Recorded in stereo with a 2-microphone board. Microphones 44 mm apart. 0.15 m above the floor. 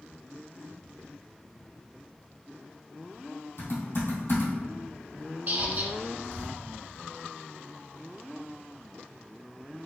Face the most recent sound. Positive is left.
turn(degrees=-40)  # may be behind; listen again after turning